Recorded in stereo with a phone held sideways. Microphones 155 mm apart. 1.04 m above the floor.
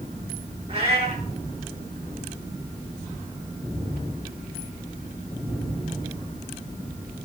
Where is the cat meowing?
45° right (ahead or behind), 6.5 m.